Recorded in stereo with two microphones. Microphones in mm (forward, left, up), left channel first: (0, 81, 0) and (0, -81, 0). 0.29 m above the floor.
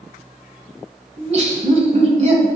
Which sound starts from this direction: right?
Laughter, at 1.2 s.